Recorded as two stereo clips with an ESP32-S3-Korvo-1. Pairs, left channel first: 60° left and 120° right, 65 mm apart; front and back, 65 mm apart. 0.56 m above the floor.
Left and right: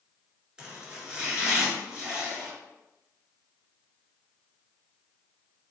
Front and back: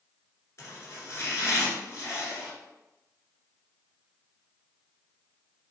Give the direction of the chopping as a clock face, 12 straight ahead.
1 o'clock.